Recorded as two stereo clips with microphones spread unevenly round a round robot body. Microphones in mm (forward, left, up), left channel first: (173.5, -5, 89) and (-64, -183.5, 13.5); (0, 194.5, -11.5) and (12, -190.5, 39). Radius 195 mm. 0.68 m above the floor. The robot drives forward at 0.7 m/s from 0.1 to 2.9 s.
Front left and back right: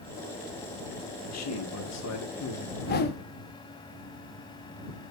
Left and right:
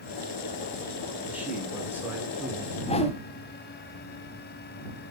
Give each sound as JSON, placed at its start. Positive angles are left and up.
{"t": 1.2, "sound": "a man speaking", "azimuth_deg": 0, "distance_m": 3.0}
{"t": 2.8, "sound": "a whoosh", "azimuth_deg": 15, "distance_m": 0.7}